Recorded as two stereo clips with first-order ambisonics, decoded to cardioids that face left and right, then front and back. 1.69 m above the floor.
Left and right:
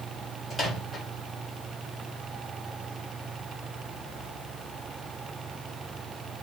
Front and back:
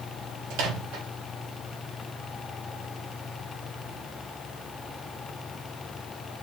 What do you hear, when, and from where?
0.5 s a microwave: 175° left, 1.0 m